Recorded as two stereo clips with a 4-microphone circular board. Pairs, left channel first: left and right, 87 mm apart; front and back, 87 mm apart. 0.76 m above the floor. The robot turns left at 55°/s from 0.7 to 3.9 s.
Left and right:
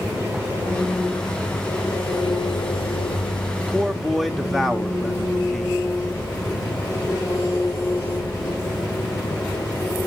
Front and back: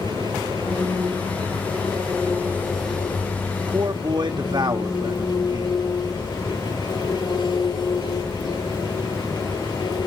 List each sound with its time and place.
0.0 s an engine running: 150° right, 9 m; by 10.1 s 35° left, 9 m
3.5 s a man speaking: 160° right, 1.2 m; by 5.8 s straight behind, 1.2 m